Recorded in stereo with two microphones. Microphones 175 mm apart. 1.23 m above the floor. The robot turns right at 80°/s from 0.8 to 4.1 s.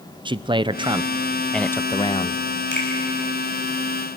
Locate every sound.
0.2 s a man speaking: 50° right, 0.5 m; by 2.4 s 80° left, 0.5 m
2.7 s a finger snap: 80° left, 6 m; by 2.9 s 85° left, 6 m